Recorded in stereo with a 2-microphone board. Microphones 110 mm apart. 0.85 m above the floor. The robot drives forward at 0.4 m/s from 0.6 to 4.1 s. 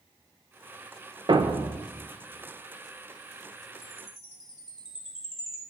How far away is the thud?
About 0.6 m.